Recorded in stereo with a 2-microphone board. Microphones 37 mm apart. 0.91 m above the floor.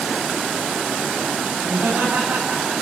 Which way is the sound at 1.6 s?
60° right (ahead or behind).